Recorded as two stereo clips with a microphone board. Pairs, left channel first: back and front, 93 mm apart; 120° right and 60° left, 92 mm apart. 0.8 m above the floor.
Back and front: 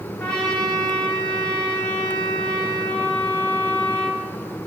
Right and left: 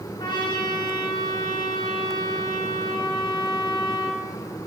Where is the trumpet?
100° right, 2 m.